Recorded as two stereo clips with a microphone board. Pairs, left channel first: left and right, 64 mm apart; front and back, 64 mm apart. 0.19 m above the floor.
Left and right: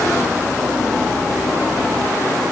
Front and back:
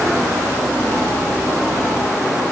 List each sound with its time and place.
Only background noise.